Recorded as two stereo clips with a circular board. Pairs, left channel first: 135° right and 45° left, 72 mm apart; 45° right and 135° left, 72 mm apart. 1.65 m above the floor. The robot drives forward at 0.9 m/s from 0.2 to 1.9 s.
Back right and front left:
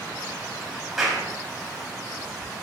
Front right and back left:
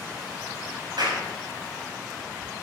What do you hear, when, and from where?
1.0 s a clap: 130° left, 7 m; by 1.2 s 135° left, 7 m